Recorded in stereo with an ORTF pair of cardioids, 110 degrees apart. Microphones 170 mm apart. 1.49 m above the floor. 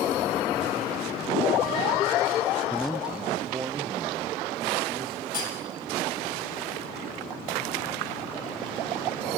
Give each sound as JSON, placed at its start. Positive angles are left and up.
{"t": 2.7, "sound": "a man speaking", "azimuth_deg": 10, "distance_m": 0.7}
{"t": 5.3, "sound": "cutlery clinking", "azimuth_deg": 50, "distance_m": 7.0}